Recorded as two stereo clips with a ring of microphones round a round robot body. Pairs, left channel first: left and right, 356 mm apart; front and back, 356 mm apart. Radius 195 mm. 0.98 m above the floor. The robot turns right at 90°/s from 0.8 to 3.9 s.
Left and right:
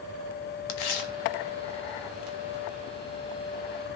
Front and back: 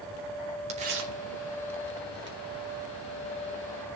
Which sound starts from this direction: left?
Tearing paper, at 0.7 s.